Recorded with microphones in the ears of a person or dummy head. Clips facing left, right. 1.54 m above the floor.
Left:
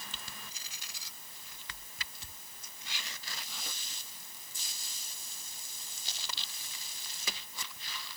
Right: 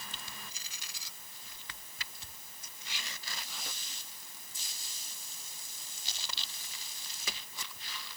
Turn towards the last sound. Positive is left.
No sound to turn to.